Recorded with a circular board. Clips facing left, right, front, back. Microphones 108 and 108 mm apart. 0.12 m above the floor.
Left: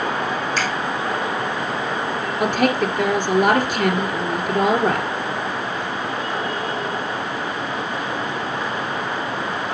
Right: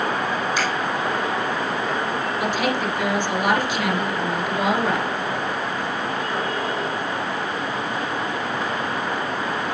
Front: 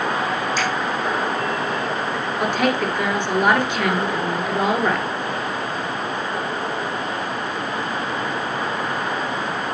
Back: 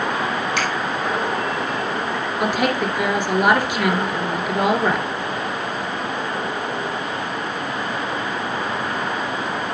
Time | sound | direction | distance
0.6 | a finger snap | 170° right | 3 m
2.4 | a woman speaking | 100° left | 1.6 m